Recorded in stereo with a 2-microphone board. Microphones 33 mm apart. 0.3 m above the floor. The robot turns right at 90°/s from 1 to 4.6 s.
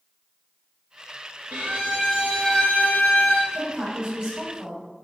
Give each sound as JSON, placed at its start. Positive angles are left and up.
{"t": 1.5, "sound": "a violin", "azimuth_deg": -60, "distance_m": 1.0}
{"t": 3.5, "sound": "a woman speaking", "azimuth_deg": -145, "distance_m": 1.9}